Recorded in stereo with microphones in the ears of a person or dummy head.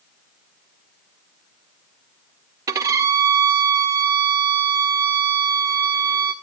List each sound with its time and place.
2.7 s a violin: 15° right (ahead or behind), 0.9 m